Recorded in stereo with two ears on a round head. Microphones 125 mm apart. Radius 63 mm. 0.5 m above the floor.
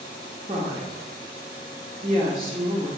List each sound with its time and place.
0.5 s a woman speaking: 40° right (ahead or behind), 1.0 m